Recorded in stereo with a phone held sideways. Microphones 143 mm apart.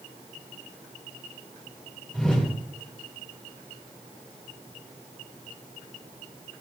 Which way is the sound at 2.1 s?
5° left (ahead or behind).